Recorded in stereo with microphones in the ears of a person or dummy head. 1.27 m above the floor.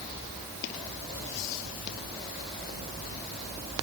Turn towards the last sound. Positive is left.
No sound to turn to.